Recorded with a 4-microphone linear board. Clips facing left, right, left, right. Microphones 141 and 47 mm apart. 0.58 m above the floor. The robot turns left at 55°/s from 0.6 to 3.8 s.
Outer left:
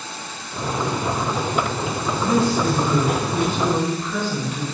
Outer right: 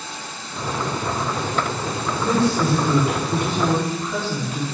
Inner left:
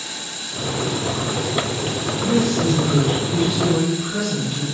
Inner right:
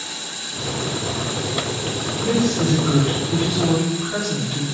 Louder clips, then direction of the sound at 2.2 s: Even, inner left 1 dB; 55° right.